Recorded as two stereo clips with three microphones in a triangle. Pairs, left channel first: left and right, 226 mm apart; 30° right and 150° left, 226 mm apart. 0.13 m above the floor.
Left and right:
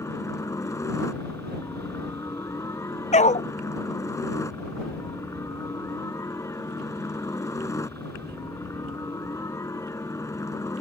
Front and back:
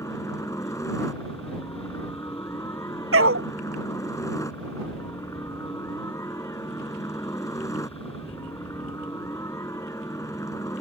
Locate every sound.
0.0 s a helicopter: 30° left
3.1 s a dog barking: 145° left